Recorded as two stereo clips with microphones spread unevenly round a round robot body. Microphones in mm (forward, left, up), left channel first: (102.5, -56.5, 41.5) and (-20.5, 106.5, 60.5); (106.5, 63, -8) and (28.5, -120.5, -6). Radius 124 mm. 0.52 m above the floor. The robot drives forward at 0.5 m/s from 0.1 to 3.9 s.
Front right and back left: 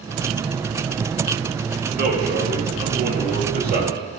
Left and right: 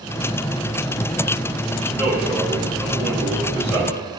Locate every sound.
1.9 s a man speaking: 165° left, 2 m; by 4.0 s 170° left, 3 m